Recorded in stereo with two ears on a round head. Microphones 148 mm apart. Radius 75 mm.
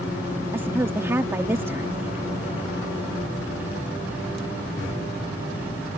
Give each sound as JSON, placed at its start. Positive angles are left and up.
{"t": 0.5, "sound": "a woman speaking", "side_deg": -15}